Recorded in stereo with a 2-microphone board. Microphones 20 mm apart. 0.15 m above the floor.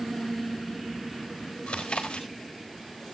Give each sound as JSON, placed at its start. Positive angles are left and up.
{"t": 1.7, "sound": "chewing", "side_deg": 65, "distance_m": 4.0}